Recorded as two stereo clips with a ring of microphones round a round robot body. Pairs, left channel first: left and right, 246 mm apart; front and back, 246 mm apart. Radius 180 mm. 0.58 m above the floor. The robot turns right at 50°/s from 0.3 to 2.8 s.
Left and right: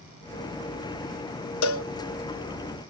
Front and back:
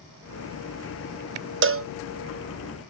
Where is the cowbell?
130° left; by 1.9 s 145° left.